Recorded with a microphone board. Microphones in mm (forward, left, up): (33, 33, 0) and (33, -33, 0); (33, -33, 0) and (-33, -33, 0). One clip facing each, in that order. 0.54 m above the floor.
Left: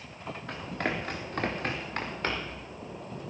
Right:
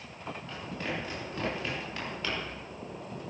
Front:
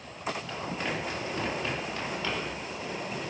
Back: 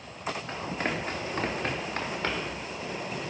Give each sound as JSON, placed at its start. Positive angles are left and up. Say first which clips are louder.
{"t": 0.5, "sound": "running footsteps", "louder": "left 5 dB, back 4 dB", "azimuth_deg": 125, "distance_m": 4.0}